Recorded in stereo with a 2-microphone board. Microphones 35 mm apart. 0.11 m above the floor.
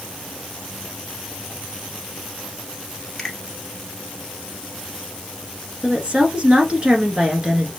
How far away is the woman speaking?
About 1.3 m.